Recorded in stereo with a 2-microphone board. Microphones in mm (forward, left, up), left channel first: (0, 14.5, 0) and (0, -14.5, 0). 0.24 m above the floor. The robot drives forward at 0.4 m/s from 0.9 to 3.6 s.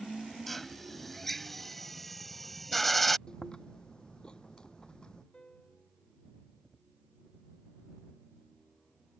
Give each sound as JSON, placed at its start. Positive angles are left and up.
{"t": 0.5, "sound": "a drill", "side_deg": 5}
{"t": 3.3, "sound": "chewing", "side_deg": 25}
{"t": 5.3, "sound": "a piano", "side_deg": 30}